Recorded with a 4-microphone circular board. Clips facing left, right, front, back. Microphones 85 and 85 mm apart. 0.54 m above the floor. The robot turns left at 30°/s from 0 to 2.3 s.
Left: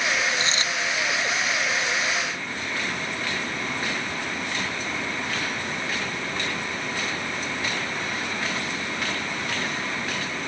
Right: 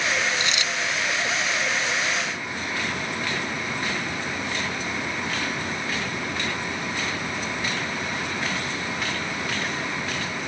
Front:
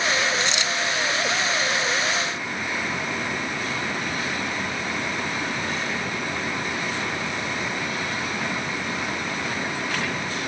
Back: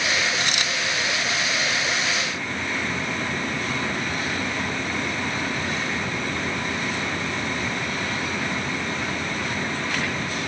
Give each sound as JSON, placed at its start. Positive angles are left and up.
{"t": 0.4, "sound": "a dropped coin", "azimuth_deg": 150}